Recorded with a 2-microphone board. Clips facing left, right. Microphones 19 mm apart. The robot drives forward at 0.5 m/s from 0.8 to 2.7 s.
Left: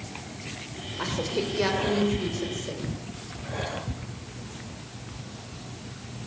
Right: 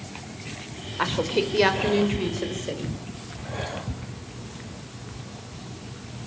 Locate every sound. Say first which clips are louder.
1.0 s a woman speaking: right 5 dB; 35° right (ahead or behind), 3 m; by 3.0 s 30° right (ahead or behind), 4 m